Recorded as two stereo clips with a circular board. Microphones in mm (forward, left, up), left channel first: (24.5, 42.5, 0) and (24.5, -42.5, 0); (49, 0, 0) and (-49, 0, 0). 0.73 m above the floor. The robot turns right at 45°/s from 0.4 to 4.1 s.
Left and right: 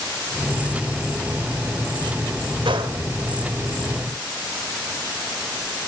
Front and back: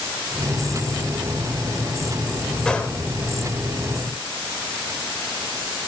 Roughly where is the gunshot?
Right.